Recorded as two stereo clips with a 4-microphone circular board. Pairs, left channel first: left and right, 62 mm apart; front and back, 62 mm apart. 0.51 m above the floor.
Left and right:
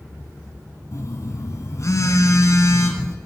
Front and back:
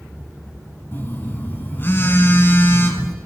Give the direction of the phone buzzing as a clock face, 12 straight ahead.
10 o'clock.